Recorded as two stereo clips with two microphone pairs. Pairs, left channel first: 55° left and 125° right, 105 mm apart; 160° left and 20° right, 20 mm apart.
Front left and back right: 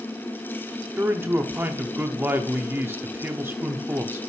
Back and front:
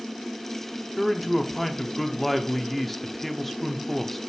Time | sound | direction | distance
1.0 | a man speaking | 135° right | 0.6 m